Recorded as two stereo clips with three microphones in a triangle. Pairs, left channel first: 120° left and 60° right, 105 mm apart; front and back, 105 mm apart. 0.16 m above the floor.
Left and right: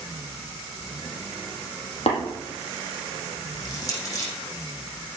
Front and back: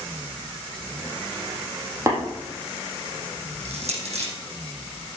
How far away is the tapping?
About 5.5 m.